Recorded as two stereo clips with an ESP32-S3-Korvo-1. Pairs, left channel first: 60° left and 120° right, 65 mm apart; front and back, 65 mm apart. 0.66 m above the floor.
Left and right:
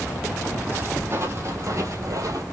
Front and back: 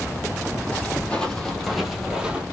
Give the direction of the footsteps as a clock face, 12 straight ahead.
2 o'clock.